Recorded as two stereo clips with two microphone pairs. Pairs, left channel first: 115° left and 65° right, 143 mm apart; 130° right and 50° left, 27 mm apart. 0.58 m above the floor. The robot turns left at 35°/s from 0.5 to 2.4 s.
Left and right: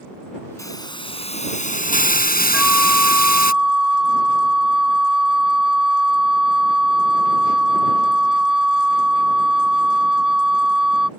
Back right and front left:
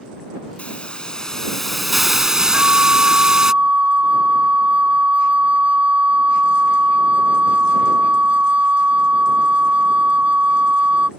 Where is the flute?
20° left.